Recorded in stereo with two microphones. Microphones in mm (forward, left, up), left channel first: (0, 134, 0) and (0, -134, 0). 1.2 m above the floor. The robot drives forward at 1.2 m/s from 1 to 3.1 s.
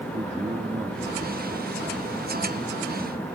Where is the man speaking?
25° right (ahead or behind); by 2.6 s 10° right (ahead or behind).